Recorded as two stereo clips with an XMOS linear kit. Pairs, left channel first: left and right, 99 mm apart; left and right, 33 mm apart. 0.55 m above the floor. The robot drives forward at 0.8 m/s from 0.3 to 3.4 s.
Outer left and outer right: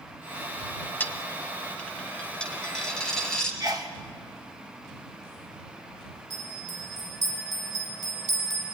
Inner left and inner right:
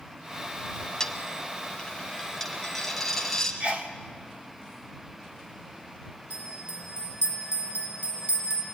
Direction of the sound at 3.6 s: 40° right (ahead or behind).